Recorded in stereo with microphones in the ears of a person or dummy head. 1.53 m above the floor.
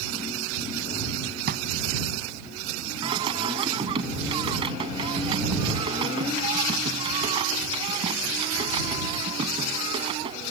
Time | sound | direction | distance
1.5 | a drawer | 65° right (ahead or behind) | ?
3.0 | singing | 30° right (ahead or behind) | ?